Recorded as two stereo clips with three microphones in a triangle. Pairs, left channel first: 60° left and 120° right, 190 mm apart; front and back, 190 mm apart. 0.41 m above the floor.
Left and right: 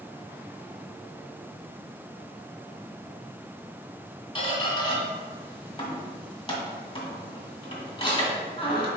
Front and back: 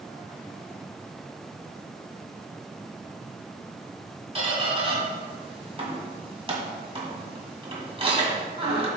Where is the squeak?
120° left, 1.9 m.